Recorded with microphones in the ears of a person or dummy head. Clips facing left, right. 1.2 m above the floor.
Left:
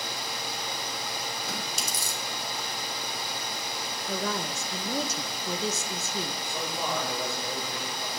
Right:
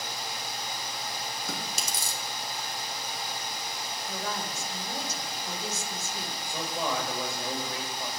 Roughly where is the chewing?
Right.